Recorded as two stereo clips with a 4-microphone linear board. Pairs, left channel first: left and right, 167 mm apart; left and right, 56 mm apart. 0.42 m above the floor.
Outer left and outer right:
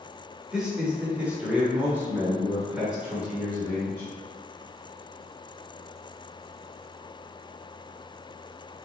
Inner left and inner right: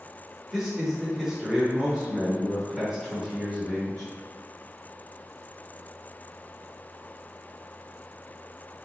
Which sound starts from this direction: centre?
A man speaking, at 0.5 s.